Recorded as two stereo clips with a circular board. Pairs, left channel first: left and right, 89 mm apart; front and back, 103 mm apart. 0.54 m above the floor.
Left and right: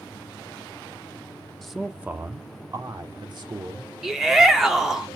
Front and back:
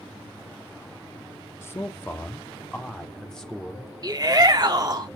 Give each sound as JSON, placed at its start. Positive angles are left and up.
{"t": 1.6, "sound": "a man speaking", "azimuth_deg": 10, "distance_m": 0.9}
{"t": 4.0, "sound": "a shout", "azimuth_deg": -175, "distance_m": 0.8}